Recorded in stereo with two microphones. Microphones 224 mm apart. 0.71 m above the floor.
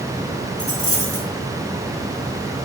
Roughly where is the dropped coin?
Left.